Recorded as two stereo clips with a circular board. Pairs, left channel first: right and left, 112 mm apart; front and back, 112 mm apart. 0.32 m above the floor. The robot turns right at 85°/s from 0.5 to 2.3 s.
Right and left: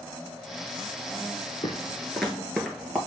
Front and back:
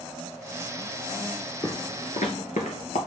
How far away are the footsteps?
About 1.4 m.